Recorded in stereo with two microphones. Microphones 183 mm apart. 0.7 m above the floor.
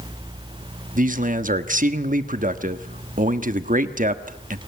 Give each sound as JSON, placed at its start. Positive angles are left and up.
{"t": 0.9, "sound": "a man speaking", "side_deg": -45, "distance_m": 1.2}